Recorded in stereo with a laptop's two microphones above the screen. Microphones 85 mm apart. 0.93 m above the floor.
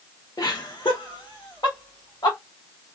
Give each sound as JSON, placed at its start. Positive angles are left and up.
{"t": 0.4, "sound": "laughter", "side_deg": 45, "distance_m": 0.6}